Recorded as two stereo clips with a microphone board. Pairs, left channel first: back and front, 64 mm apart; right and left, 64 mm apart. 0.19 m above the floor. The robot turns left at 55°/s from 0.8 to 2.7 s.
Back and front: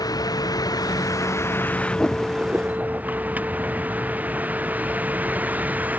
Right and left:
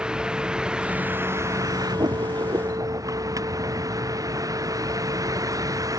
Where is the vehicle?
170° left; by 6.0 s 65° left.